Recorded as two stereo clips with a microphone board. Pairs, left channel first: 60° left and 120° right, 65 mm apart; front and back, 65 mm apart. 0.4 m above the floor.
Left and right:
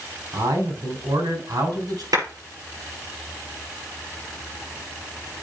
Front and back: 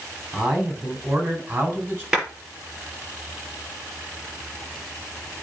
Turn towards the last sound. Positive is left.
turn(degrees=-100)